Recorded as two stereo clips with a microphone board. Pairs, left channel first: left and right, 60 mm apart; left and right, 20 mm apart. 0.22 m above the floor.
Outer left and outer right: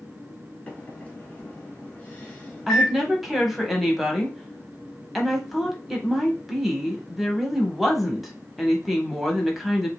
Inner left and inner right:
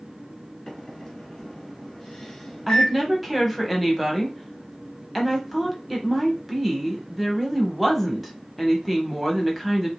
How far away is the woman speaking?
About 0.9 m.